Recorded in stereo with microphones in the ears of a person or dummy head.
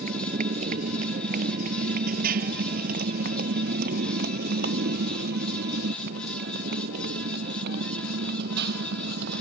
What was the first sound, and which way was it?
A motorcycle, 50° right (ahead or behind).